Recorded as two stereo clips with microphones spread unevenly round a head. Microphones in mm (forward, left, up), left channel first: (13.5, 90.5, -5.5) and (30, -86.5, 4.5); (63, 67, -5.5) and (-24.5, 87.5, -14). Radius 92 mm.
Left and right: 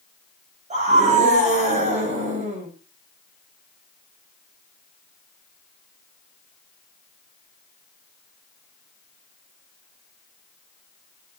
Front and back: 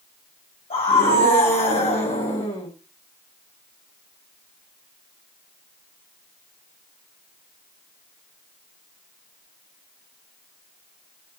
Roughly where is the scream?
Ahead right.